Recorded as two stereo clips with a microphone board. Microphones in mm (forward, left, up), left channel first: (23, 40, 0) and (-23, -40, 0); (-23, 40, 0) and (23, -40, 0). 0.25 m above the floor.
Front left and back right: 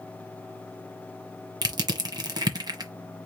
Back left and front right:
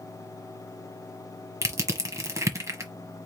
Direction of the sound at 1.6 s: 105° right.